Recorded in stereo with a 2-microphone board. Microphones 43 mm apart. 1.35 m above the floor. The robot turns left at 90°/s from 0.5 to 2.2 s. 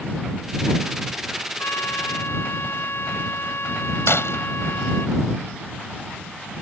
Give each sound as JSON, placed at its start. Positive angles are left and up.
{"t": 1.6, "sound": "a trumpet", "azimuth_deg": 120}
{"t": 4.1, "sound": "breaking glass", "side_deg": 75}